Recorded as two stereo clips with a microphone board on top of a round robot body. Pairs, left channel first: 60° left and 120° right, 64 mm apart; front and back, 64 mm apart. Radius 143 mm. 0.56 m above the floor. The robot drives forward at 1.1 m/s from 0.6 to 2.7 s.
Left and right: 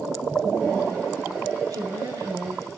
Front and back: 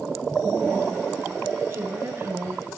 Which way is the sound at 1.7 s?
135° right.